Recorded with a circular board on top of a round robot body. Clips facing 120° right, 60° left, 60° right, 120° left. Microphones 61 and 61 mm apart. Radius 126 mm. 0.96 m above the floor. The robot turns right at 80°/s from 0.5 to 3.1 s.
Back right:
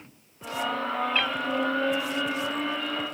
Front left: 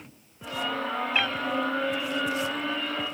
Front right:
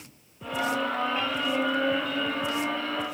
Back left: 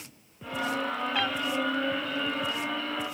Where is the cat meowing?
140° left, 0.7 m; by 1.4 s 155° left, 0.7 m.